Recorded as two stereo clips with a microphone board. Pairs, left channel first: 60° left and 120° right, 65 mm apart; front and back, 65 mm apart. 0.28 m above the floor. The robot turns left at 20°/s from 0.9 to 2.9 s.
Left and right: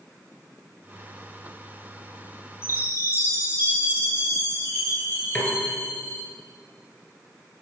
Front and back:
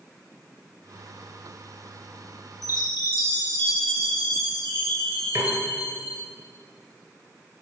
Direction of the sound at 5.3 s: 135° left.